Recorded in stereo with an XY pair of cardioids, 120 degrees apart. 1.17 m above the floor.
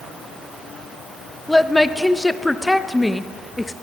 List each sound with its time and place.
1.5 s a woman speaking: 10° left, 0.7 m